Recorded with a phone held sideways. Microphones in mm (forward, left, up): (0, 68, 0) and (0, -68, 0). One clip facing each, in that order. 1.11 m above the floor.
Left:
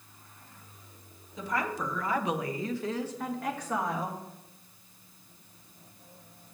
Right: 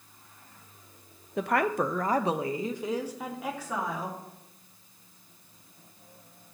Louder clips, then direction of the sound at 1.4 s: Right 6 dB; 70° right (ahead or behind).